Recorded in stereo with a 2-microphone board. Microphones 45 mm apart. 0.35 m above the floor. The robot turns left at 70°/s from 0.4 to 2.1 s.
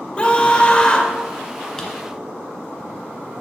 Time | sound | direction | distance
0.2 | a scream | 25° left (ahead or behind) | 1.3 m
1.8 | a drawer | 10° left (ahead or behind) | 1.9 m